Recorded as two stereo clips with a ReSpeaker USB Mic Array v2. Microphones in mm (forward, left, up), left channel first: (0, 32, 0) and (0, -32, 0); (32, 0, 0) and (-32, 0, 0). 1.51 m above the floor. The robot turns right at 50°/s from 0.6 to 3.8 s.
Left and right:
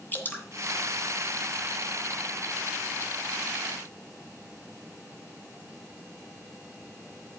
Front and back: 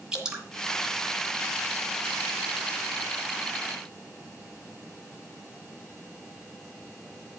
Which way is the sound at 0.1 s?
110° left.